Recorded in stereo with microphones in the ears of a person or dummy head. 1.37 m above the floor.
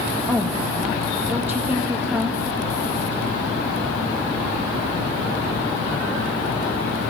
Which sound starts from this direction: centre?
A woman speaking, at 0.3 s.